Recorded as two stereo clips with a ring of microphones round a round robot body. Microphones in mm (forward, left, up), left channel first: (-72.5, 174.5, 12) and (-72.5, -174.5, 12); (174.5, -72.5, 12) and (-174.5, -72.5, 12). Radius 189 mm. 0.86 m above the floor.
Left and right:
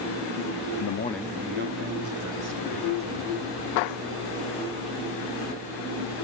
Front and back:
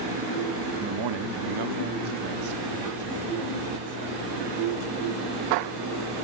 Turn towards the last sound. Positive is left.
turn(degrees=-135)